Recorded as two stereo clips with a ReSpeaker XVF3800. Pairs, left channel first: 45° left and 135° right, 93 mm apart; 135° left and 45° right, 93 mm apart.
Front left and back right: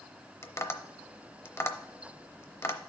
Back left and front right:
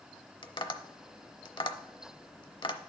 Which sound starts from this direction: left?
Tapping, at 0.4 s.